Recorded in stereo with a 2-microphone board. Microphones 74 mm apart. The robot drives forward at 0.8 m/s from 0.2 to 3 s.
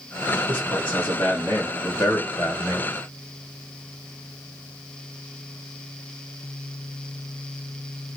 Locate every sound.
0.5 s a man speaking: 15° left (ahead or behind), 1.9 m; by 2.9 s 25° left (ahead or behind), 1.4 m